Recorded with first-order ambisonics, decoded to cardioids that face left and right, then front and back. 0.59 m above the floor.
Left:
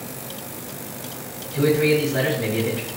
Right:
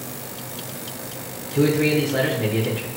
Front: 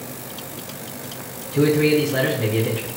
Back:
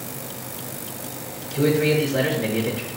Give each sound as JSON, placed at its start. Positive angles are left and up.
{"t": 1.5, "sound": "a man speaking", "azimuth_deg": -25, "distance_m": 4.0}